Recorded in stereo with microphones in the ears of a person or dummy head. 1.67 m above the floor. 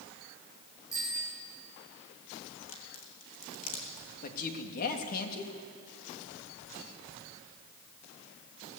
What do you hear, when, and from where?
0.9 s a bicycle bell: 15° left (ahead or behind), 8 m
2.6 s a crack: 40° left (ahead or behind), 3 m
4.2 s a man speaking: 50° left (ahead or behind), 3 m